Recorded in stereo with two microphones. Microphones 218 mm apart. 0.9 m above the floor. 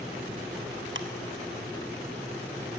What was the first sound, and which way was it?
Ticking, 60° right (ahead or behind).